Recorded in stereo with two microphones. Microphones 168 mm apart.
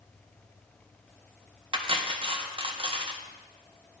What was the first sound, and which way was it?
Cutlery clinking, 30° right (ahead or behind).